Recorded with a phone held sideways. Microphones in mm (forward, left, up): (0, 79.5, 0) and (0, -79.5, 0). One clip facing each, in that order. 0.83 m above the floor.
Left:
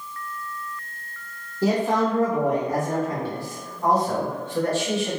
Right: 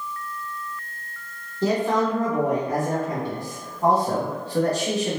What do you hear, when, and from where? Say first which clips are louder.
1.6 s a man speaking: even; 10° left (ahead or behind), 1.5 m; by 5.2 s 40° right (ahead or behind), 1.3 m